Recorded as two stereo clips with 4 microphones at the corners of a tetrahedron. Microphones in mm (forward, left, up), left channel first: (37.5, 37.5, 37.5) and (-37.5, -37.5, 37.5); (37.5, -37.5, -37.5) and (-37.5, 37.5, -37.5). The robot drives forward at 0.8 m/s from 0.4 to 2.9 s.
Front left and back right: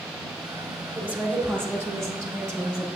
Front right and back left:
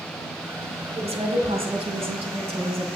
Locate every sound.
1.0 s a woman speaking: 150° left, 1.4 m; by 2.9 s 165° left, 3 m